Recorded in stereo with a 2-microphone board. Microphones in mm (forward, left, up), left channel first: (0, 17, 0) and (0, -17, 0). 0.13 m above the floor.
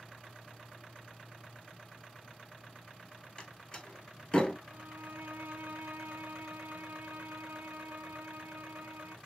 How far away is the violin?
About 0.6 m.